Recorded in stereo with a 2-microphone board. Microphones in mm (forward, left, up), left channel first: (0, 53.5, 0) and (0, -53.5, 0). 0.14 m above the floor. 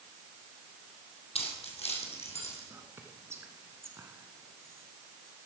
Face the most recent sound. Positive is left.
turn(degrees=-25)  # may be behind; listen again after turning